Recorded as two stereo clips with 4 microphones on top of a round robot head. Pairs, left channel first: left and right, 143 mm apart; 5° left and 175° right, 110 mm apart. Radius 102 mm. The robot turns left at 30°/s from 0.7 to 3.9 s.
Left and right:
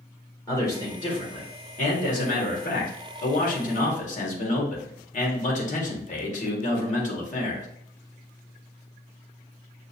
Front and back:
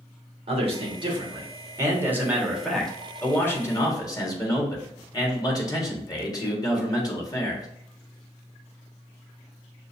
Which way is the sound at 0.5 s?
155° left.